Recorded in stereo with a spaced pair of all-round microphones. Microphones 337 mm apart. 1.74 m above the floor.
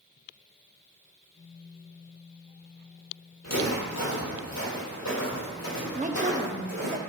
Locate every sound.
3.4 s footsteps: 55° left (ahead or behind), 3.5 m
6.0 s a woman speaking: 25° right (ahead or behind), 0.6 m